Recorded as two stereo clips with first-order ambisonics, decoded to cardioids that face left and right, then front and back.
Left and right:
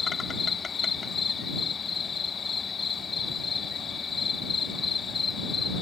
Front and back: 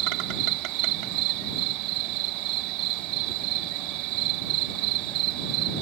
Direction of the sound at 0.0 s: 160° left.